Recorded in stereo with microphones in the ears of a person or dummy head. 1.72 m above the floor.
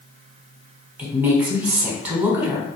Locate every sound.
1.0 s a woman speaking: 10° right (ahead or behind), 0.8 m